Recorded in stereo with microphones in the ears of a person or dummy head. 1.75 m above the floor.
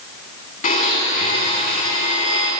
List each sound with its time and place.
0.6 s a blender: 45° left (ahead or behind), 5.5 m